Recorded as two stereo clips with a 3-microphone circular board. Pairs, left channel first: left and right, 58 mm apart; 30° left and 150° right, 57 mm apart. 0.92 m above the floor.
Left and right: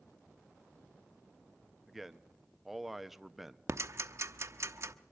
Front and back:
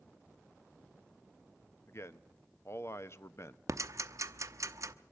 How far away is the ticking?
About 0.8 m.